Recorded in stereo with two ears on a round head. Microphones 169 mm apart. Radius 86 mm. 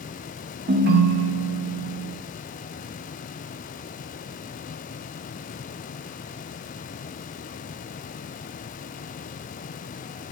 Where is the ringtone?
55° right (ahead or behind), 0.7 m.